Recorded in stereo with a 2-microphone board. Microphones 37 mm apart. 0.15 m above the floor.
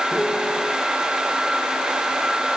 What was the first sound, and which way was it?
A piano, 30° left (ahead or behind).